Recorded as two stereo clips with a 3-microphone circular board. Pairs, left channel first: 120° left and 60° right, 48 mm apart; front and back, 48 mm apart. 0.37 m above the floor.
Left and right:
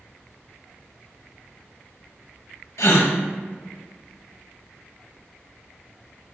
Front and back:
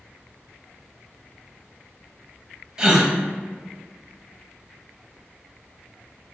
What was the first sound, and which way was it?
A gasp, 105° left.